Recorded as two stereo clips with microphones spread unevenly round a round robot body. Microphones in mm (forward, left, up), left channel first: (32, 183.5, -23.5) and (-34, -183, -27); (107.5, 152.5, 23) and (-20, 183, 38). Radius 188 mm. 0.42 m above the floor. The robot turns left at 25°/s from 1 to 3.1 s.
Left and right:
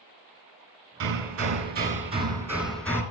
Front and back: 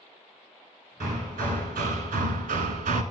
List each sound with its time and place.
1.0 s hammering: 145° right, 1.3 m; by 3.0 s 165° left, 1.3 m